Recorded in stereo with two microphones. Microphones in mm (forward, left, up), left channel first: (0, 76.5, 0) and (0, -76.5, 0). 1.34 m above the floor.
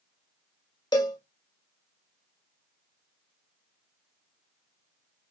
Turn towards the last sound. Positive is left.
turn(degrees=25)  # may be behind; listen again after turning